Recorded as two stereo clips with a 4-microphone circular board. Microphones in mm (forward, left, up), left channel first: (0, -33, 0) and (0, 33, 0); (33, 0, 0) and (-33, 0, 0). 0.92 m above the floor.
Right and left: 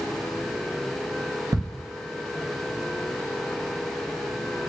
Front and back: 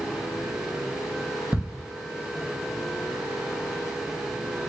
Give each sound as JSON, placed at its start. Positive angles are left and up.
{"t": 1.5, "sound": "ticking", "azimuth_deg": 100, "distance_m": 0.9}